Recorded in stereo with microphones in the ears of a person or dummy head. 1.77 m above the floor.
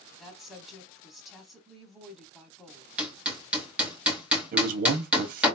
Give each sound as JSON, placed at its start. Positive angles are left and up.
{"t": 0.2, "sound": "a woman speaking", "side_deg": 0, "distance_m": 2.5}
{"t": 3.0, "sound": "hammering", "side_deg": -10, "distance_m": 2.0}
{"t": 4.5, "sound": "a man speaking", "side_deg": -50, "distance_m": 1.7}